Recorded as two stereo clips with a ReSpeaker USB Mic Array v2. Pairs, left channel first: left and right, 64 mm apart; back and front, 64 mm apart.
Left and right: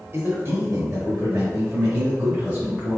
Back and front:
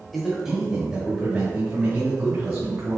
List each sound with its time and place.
0.1 s a man speaking: 80° right, 1.2 m; by 3.0 s 20° right, 1.9 m